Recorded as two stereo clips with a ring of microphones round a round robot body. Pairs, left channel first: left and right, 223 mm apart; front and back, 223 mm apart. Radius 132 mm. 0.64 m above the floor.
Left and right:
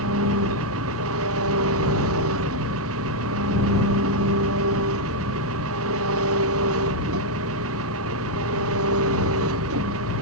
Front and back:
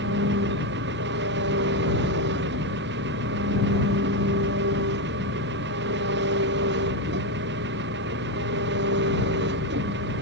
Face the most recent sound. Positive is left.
turn(degrees=-130)